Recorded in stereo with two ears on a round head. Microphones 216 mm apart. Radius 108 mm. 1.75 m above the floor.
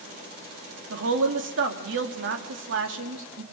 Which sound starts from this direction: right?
A woman speaking, at 0.9 s.